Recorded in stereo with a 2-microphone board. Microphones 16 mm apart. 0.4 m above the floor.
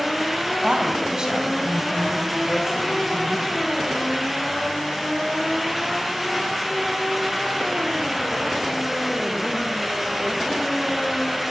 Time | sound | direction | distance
0.6 | a woman speaking | 55° right (ahead or behind) | 3 m